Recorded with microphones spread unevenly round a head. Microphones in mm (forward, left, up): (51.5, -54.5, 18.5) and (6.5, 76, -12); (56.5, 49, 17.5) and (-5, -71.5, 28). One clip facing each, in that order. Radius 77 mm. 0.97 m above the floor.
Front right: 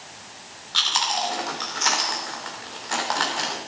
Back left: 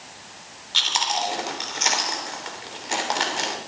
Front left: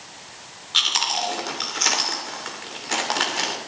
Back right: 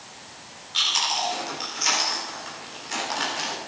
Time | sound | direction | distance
0.7 | chewing | 45° left | 3 m